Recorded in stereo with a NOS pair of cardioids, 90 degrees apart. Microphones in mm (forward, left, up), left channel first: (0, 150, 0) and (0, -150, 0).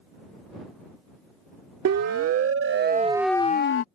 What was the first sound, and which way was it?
A siren, 60° right.